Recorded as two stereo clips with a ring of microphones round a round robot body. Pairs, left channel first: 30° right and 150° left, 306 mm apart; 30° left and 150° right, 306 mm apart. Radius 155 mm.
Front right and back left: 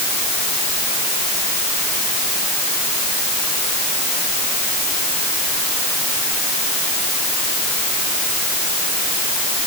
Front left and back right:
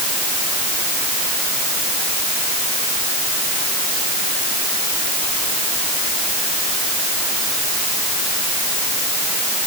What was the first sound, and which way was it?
Only background noise.